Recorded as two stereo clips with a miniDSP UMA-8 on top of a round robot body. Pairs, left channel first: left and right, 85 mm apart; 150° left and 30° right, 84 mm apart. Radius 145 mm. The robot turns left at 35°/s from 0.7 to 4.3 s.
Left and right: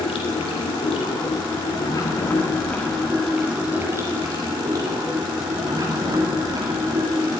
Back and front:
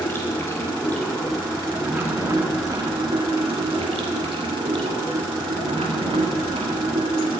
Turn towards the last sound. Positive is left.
turn(degrees=-40)